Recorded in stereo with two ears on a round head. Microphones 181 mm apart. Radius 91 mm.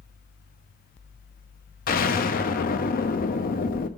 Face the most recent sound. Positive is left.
turn(degrees=45)  # may be behind; listen again after turning